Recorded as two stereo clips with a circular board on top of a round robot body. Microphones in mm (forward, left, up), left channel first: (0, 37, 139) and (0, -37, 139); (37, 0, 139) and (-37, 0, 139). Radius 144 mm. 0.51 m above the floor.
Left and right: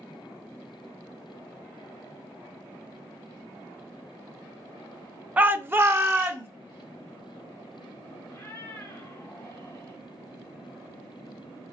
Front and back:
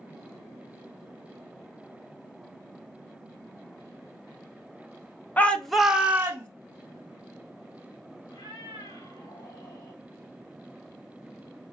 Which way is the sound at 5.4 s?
45° right.